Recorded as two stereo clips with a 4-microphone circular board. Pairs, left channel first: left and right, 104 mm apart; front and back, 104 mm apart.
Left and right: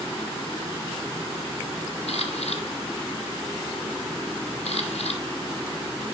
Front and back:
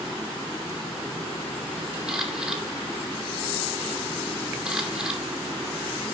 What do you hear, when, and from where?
2.1 s a camera shutter: 100° left, 2.5 m